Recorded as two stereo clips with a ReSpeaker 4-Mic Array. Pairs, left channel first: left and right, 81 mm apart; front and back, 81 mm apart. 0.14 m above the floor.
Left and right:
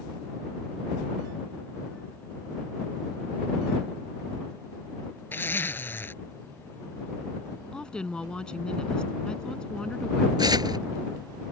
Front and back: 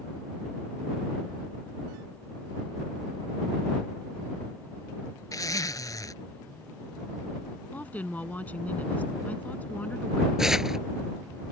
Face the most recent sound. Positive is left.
turn(degrees=-95)